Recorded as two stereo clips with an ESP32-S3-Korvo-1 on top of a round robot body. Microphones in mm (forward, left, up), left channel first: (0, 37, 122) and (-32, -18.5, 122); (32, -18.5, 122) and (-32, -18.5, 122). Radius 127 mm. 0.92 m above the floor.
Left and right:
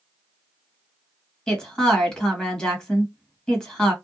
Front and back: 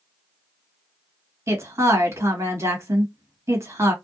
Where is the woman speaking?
140° left, 1.8 m.